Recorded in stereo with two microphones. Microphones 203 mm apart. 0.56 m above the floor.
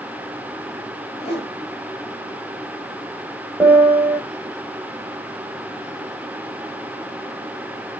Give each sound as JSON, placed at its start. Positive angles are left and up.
{"t": 1.2, "sound": "a whoosh", "side_deg": 30, "distance_m": 1.4}
{"t": 3.6, "sound": "a piano", "side_deg": -10, "distance_m": 1.7}